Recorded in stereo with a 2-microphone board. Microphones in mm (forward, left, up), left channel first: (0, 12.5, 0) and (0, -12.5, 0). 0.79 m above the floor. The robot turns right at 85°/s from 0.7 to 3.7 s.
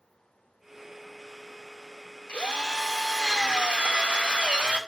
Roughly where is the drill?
Behind left.